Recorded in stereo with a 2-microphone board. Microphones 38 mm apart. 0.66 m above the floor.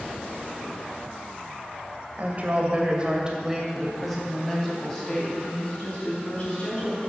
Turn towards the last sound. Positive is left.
turn(degrees=25)  # may be behind; listen again after turning